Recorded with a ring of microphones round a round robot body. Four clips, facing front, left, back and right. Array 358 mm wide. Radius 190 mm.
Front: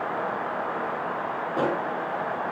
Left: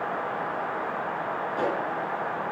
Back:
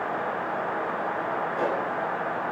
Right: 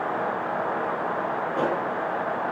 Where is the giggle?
I don't hear a giggle.